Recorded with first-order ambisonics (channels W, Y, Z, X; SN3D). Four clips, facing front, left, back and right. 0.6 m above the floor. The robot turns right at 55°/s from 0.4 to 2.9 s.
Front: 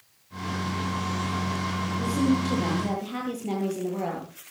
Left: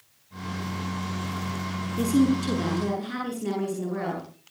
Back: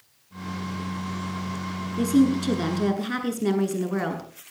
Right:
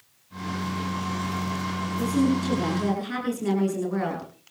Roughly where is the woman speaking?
Behind left.